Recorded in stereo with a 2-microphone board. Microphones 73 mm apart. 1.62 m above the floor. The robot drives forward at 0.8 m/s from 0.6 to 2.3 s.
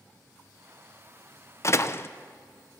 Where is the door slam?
40° left (ahead or behind), 0.6 m; by 2.1 s 30° left (ahead or behind), 0.7 m.